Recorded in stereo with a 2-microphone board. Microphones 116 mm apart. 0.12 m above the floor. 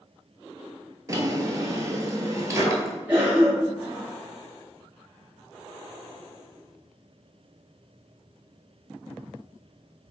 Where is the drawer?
30° right (ahead or behind), 0.5 m.